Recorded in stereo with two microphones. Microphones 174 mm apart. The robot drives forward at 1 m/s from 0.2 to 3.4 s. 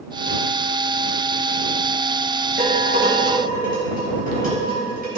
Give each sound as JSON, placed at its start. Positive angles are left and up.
{"t": 2.6, "sound": "dishes clattering", "side_deg": -70, "distance_m": 4.5}